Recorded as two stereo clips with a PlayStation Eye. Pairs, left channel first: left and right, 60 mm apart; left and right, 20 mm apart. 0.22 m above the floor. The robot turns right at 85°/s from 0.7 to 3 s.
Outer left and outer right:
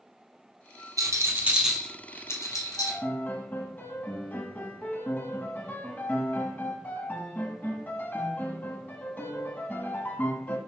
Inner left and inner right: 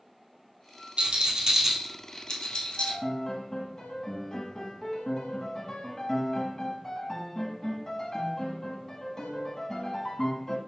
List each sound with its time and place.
1.0 s a rattle: 65° right (ahead or behind), 0.9 m; by 3.0 s 75° left (ahead or behind), 0.9 m
2.8 s a piano: 45° left (ahead or behind), 0.8 m; by 10.6 s 30° left (ahead or behind), 0.8 m